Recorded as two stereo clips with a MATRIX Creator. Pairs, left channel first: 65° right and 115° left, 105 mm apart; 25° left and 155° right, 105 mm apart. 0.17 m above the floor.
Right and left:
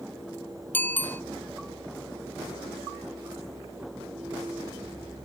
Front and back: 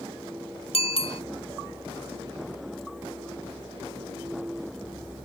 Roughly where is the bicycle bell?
Ahead.